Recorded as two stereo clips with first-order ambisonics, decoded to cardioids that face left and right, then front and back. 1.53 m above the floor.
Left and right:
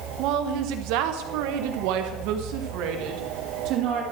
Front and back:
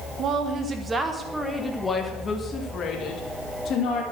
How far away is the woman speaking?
About 1.5 m.